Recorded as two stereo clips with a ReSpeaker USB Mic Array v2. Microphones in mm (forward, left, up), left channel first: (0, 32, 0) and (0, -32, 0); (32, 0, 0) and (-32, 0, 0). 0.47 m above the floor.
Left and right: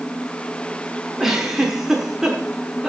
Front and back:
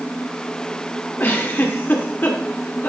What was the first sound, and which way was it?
A giggle, 10° right.